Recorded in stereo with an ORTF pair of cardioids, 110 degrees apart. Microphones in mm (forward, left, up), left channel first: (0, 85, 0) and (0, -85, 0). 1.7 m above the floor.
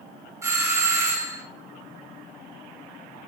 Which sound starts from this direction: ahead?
A doorbell, at 0.4 s.